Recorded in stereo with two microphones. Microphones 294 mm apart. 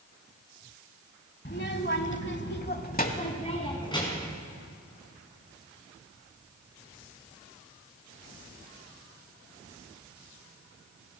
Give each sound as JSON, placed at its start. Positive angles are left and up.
{"t": 1.4, "sound": "a child speaking", "side_deg": 35, "distance_m": 1.2}